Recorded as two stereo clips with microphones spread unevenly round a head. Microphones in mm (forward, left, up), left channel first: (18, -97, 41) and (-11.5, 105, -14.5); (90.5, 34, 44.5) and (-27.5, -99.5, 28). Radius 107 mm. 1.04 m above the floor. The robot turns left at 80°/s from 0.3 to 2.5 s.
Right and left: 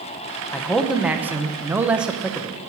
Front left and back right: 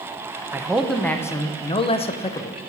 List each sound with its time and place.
0.5 s a man speaking: straight behind, 0.6 m; by 2.6 s 20° left, 0.6 m